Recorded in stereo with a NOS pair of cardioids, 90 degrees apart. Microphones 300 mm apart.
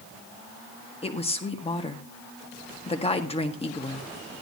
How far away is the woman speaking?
About 1.7 m.